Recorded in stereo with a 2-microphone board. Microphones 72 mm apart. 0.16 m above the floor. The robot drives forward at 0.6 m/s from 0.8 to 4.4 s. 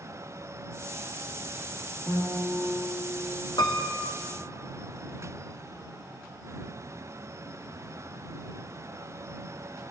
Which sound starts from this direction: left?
A piano, at 3.6 s.